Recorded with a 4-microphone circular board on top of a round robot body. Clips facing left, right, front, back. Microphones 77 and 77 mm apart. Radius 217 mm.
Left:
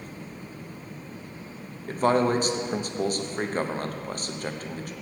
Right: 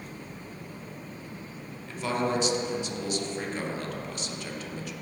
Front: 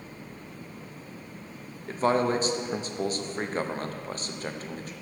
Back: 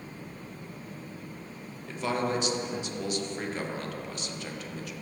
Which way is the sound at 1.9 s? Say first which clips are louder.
Left 7 dB, front 5 dB; 50° left.